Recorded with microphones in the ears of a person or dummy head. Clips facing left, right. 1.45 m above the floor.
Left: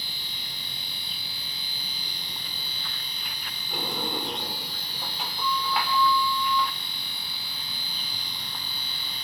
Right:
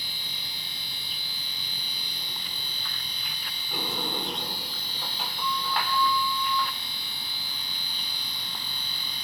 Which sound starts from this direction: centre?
A sliding door, at 3.7 s.